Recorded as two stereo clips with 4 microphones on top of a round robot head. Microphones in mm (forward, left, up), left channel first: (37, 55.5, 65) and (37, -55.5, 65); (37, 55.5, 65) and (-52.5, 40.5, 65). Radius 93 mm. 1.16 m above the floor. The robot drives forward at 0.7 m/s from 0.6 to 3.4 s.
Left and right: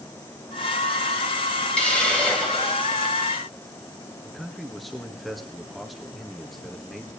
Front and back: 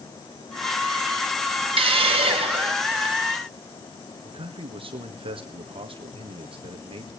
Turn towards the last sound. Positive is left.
turn(degrees=180)